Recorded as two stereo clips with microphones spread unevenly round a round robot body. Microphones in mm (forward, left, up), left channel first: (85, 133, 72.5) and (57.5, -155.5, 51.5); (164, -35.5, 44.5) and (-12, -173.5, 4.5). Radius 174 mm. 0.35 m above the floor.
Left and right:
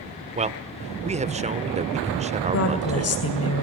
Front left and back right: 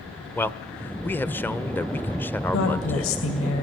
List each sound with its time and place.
0.3 s a man speaking: 55° right, 1.0 m
2.5 s a woman speaking: 60° left, 2 m